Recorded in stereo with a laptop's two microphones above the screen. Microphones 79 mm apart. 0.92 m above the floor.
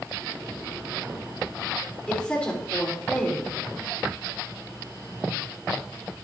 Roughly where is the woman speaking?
Centre.